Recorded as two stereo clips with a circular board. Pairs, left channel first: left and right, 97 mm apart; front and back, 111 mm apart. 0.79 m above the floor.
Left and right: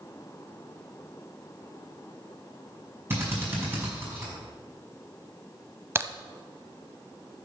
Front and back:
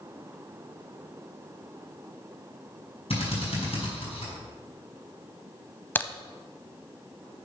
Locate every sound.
3.1 s a drill: 25° right, 5 m
6.0 s a crack: 50° right, 0.7 m